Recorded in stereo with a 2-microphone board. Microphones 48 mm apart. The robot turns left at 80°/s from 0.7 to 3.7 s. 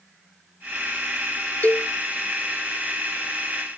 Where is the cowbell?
40° left (ahead or behind); by 1.9 s 35° left (ahead or behind).